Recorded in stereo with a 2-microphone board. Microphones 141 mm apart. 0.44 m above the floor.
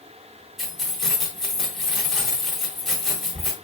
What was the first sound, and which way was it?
Keys jangling, centre (ahead or behind).